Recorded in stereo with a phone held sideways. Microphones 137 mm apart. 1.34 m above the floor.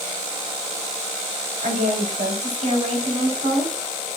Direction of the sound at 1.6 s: 75° right (ahead or behind).